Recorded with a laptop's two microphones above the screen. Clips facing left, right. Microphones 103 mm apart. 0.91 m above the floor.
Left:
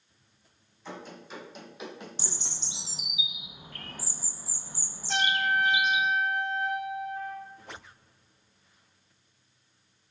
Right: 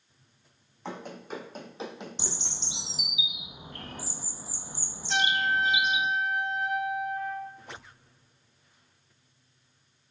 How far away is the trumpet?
About 1.5 m.